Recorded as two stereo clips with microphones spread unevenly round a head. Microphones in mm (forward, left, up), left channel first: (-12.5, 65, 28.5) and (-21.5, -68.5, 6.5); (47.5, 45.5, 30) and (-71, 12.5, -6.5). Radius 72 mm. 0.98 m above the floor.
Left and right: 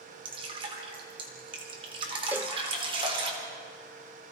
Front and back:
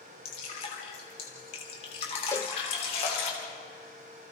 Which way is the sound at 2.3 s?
10° right.